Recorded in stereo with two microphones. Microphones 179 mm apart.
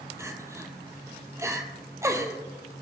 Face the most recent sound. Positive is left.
turn(degrees=-15)  # may be behind; listen again after turning